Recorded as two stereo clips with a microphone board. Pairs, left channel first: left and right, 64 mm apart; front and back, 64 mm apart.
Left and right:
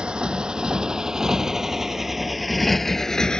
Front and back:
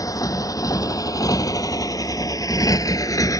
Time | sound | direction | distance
0.0 | a motorcycle | 15° right | ?